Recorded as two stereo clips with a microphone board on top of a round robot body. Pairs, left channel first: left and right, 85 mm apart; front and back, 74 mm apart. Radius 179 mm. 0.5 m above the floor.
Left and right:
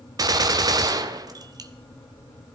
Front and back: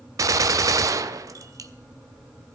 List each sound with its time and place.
0.2 s a gunshot: 135° right, 0.6 m